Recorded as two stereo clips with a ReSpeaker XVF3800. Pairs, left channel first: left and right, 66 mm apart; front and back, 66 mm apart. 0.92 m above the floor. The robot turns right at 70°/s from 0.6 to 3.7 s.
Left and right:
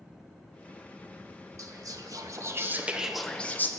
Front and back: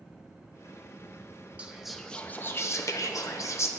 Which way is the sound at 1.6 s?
110° right.